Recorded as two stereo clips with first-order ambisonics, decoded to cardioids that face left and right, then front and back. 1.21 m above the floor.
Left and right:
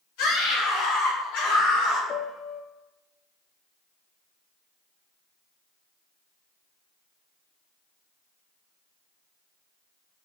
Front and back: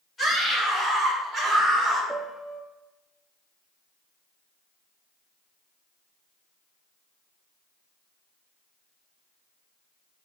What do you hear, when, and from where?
0.2 s a scream: 80° left, 4 m; by 2.0 s 100° left, 4.5 m
2.1 s a piano: 105° left, 0.6 m